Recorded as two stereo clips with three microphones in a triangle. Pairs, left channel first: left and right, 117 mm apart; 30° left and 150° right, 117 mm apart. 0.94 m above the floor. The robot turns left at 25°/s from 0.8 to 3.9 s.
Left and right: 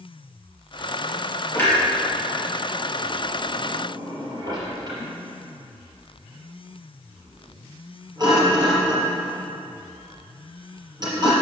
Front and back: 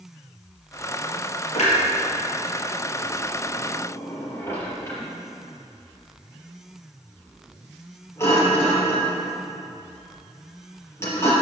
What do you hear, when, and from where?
1.6 s a clunk: 20° left, 3.5 m; by 11.3 s 35° right, 3.5 m